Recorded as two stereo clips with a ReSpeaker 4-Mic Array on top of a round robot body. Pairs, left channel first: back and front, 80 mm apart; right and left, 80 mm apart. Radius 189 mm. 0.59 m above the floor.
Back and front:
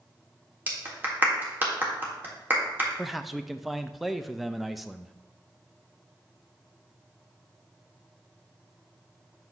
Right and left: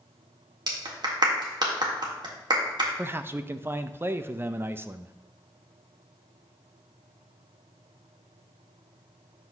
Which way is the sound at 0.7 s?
65° left.